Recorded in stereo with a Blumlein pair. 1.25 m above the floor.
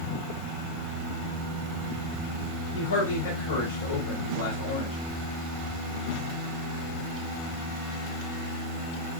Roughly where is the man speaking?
Ahead left.